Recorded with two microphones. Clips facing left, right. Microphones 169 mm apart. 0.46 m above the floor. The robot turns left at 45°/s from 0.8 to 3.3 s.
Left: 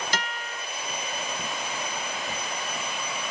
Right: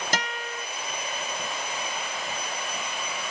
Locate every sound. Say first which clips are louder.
0.1 s a guitar: right 2 dB; 45° right (ahead or behind), 1.5 m